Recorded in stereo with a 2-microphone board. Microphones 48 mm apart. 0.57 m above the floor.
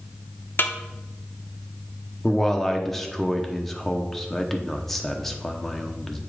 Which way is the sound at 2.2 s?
10° left (ahead or behind).